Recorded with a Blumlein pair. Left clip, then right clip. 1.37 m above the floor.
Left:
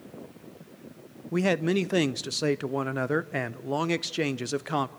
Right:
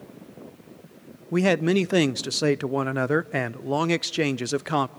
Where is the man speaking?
10° right, 0.5 m.